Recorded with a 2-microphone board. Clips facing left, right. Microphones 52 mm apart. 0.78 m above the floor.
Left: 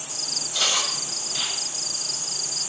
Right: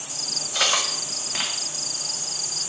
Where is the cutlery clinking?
65° right (ahead or behind), 0.6 m.